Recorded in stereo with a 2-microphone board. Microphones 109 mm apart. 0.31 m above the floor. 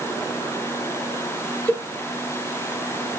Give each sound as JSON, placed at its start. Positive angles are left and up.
{"t": 1.7, "sound": "a cowbell", "side_deg": 15, "distance_m": 0.5}